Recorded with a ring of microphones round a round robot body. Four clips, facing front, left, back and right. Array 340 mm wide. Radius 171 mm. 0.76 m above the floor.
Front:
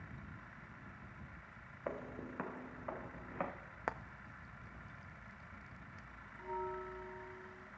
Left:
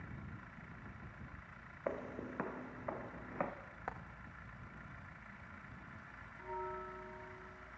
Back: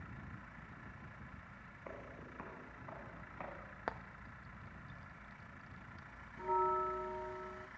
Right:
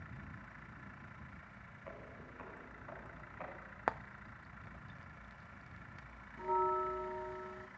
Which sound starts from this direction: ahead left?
Footsteps, at 1.9 s.